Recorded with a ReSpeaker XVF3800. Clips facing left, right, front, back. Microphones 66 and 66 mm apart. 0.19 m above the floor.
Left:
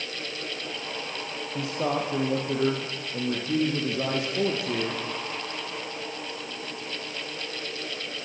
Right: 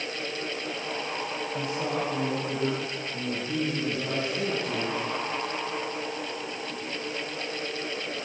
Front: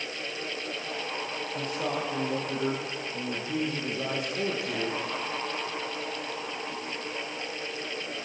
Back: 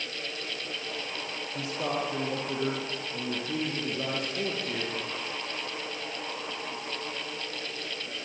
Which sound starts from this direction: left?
A man speaking, at 1.6 s.